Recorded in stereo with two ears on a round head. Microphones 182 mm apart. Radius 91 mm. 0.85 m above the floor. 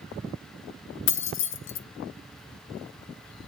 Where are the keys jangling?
65° left (ahead or behind), 0.9 m.